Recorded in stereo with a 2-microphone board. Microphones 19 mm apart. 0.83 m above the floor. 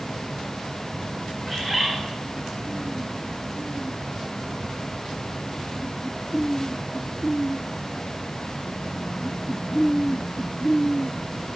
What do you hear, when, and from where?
1.5 s a bird: 5° left (ahead or behind), 0.7 m